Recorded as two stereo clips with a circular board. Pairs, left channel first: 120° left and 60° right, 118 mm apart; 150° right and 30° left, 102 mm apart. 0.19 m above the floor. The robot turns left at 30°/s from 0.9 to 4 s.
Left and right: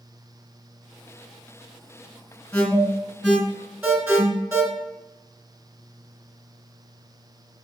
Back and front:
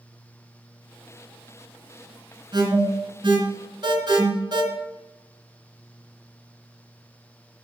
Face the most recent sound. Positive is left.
turn(degrees=5)